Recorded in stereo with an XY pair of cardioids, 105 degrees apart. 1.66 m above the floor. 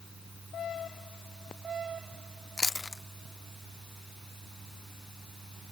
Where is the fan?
25° right.